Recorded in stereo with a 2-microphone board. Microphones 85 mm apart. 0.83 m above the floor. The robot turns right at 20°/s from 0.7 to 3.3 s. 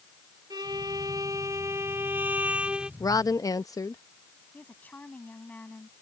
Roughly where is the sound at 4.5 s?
Centre.